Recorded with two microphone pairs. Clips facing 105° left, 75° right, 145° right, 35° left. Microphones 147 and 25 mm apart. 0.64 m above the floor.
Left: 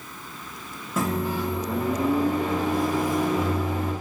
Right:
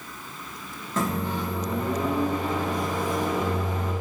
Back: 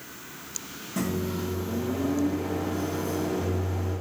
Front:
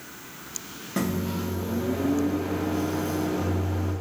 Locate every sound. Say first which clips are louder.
1.0 s a microwave: left 2 dB, front 1 dB; 20° left, 0.6 m